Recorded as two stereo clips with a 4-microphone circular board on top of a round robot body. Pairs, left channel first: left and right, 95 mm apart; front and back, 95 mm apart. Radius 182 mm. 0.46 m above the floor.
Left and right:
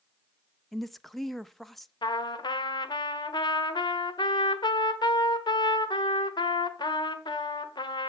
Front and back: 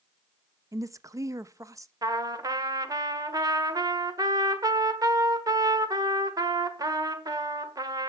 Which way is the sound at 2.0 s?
130° left.